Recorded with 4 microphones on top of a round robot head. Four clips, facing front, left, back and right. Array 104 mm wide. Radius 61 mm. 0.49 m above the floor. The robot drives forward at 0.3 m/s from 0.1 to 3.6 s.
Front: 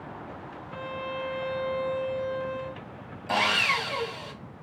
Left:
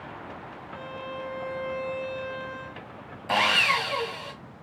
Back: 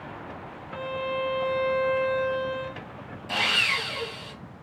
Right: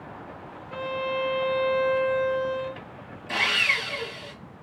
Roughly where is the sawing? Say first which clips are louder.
Left 4 dB, front 3 dB; ahead left.